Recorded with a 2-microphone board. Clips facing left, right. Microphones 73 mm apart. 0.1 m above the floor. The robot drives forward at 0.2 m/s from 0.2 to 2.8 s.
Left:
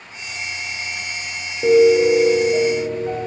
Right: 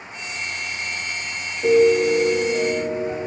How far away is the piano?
About 0.5 m.